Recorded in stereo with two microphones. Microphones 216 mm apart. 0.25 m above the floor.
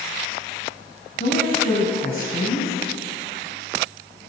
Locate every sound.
1.2 s a woman speaking: 40° left (ahead or behind), 1.9 m